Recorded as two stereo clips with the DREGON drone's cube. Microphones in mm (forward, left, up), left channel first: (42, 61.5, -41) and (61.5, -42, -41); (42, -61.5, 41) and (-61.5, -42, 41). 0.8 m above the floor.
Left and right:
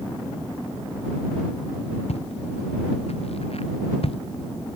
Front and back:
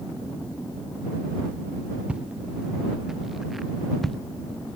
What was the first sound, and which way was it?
Footsteps, 90° left.